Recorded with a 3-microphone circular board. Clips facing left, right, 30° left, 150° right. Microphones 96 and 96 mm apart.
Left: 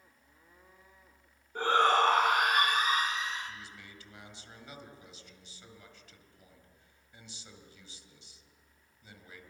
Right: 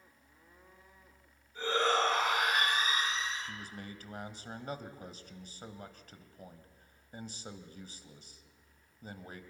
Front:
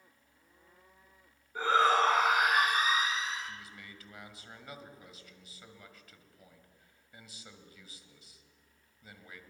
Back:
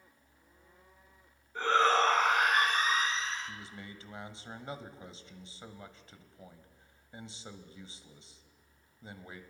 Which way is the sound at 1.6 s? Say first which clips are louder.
Left 5 dB, even; 110° left.